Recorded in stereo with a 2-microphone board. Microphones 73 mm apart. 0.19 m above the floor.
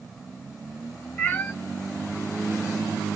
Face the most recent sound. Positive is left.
turn(degrees=25)  # may be behind; listen again after turning